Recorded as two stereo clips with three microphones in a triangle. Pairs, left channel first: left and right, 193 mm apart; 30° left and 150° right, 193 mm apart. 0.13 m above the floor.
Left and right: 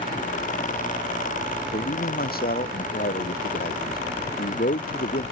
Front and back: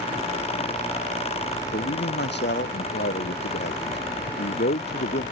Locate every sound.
1.7 s a man speaking: 55° left